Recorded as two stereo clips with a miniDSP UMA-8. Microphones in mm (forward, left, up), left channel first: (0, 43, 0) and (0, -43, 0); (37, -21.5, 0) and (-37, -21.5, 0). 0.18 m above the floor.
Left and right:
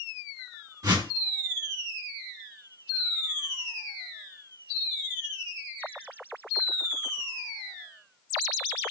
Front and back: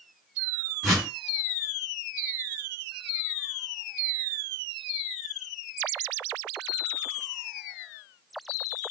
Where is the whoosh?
90° right, 2.5 m.